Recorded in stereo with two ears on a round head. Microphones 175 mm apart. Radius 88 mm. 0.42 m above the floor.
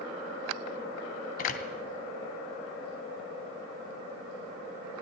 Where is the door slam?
45° left (ahead or behind), 2 m.